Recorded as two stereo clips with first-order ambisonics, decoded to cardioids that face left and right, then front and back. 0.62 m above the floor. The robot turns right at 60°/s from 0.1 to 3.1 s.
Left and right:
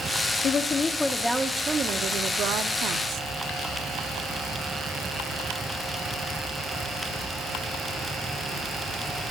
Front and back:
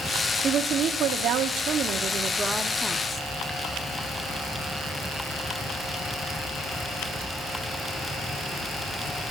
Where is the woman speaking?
130° left, 0.8 m; by 3.3 s 70° right, 0.8 m.